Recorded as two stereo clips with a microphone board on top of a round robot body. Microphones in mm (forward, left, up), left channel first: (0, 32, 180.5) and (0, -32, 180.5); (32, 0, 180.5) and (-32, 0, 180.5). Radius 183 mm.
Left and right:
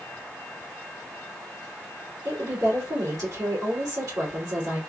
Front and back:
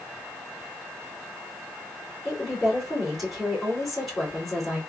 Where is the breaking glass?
I don't hear breaking glass.